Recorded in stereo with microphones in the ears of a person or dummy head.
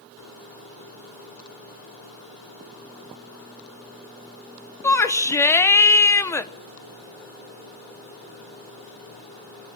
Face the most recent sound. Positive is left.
turn(degrees=15)  # may be behind; listen again after turning